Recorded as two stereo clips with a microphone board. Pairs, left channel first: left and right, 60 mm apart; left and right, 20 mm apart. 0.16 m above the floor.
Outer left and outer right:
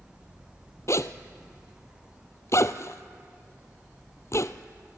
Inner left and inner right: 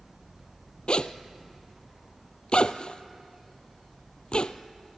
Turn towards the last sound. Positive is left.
turn(degrees=55)  # may be behind; listen again after turning